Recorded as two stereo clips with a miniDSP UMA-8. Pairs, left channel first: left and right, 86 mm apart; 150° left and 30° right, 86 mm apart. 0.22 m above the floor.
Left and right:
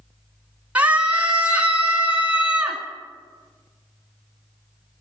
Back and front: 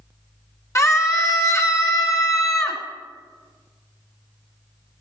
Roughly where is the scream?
Behind.